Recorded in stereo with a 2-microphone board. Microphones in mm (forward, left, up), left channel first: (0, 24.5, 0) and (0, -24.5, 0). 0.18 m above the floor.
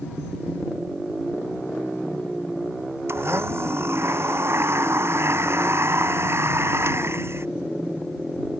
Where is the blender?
55° right (ahead or behind).